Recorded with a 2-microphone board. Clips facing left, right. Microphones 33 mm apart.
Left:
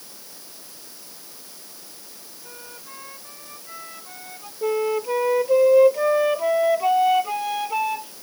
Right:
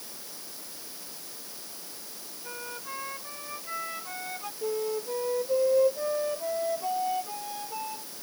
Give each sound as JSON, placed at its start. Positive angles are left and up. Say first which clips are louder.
{"t": 2.4, "sound": "a flute", "louder": "right 4 dB", "side_deg": -20}
{"t": 4.6, "sound": "a flute", "louder": "left 8 dB", "side_deg": 80}